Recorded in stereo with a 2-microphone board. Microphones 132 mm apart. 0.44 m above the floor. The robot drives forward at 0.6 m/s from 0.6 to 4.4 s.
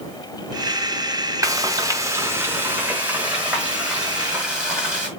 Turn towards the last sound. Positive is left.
turn(degrees=-10)  # may be behind; listen again after turning